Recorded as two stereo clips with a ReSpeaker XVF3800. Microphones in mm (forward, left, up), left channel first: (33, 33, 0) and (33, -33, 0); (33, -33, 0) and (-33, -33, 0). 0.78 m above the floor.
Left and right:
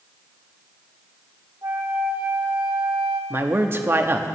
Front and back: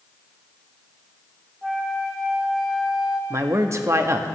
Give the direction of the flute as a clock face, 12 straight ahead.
3 o'clock.